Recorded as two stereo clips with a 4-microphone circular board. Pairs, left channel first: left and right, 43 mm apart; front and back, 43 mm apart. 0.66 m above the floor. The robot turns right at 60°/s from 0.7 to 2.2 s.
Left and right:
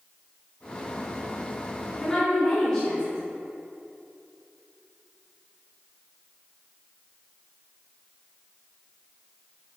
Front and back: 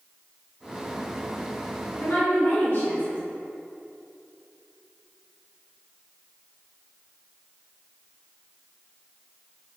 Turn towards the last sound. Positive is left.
turn(degrees=20)